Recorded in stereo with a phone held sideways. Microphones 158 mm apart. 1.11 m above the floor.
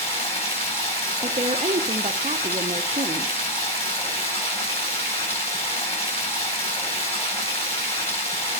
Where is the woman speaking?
50° right (ahead or behind), 0.6 m.